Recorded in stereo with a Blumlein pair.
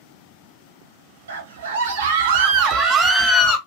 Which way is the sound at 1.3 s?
60° right.